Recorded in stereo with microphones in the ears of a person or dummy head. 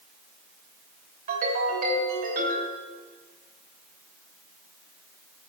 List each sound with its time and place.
1.3 s a ringtone: 45° right (ahead or behind), 3.5 m